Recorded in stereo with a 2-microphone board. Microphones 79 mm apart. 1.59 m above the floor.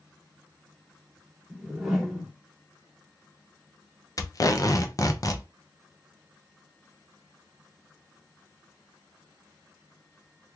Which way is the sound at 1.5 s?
5° right (ahead or behind).